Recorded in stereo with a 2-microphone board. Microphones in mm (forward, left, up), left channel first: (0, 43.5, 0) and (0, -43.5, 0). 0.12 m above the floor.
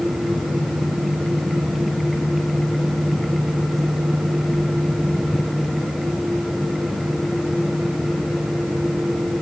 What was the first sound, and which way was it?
Only background noise.